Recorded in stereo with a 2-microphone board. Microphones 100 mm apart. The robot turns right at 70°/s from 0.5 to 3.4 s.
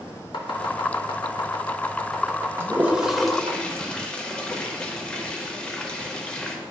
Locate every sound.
0.3 s chopping: 60° left (ahead or behind), 1.7 m; by 3.6 s 75° right (ahead or behind), 1.7 m
2.6 s a toilet flushing: 25° right (ahead or behind), 1.0 m; by 6.6 s 10° left (ahead or behind), 1.0 m